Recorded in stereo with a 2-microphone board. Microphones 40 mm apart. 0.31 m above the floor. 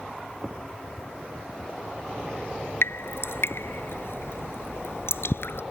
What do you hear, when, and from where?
2.8 s dripping: 75° left (ahead or behind)